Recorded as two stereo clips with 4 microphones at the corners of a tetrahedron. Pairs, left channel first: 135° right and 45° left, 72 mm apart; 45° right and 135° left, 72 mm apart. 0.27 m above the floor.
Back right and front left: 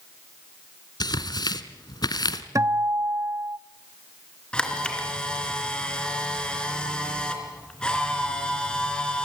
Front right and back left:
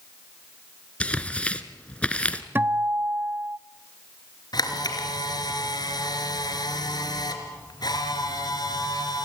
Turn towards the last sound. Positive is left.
turn(degrees=-55)